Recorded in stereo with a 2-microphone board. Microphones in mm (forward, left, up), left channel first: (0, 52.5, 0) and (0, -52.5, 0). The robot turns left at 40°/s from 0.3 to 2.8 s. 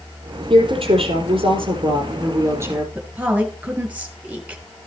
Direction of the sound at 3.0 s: 15° right (ahead or behind).